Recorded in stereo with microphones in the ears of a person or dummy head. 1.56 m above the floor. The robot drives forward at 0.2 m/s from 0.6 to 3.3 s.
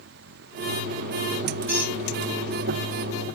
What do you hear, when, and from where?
1.7 s a squeak: 5° left (ahead or behind), 1.9 m